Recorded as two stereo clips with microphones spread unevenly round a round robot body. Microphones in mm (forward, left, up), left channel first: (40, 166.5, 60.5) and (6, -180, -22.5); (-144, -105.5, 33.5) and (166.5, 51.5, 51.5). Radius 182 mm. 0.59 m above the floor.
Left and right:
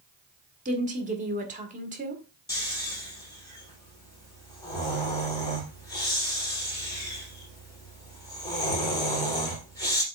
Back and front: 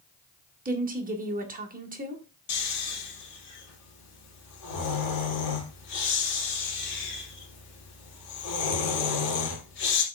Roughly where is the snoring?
Behind.